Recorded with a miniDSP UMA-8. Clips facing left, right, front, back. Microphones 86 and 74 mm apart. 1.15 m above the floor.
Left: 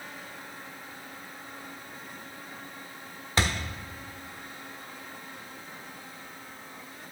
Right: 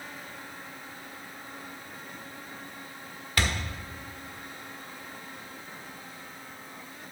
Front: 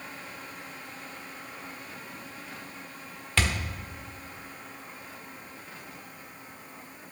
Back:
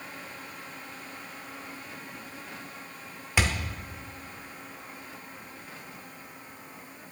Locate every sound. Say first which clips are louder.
3.4 s a thud: left 2 dB, back 1 dB; 115° left, 0.8 m